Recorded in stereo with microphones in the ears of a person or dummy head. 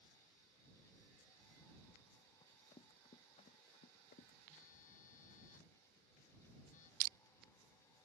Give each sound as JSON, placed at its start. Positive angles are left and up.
{"t": 2.4, "sound": "running footsteps", "side_deg": 25}
{"t": 4.5, "sound": "a phone buzzing", "side_deg": 50}
{"t": 7.0, "sound": "crushing", "side_deg": -50}